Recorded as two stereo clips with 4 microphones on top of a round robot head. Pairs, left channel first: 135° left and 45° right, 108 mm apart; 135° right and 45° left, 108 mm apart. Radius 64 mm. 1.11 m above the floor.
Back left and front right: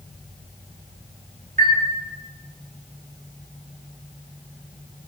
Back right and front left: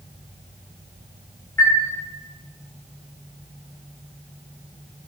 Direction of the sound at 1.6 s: 65° right.